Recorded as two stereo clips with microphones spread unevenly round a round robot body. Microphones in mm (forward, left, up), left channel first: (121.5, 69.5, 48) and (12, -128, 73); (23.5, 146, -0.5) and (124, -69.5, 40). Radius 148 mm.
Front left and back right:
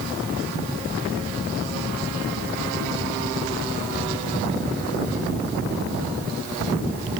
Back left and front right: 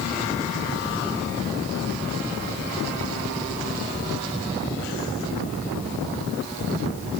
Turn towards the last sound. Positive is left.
No sound to turn to.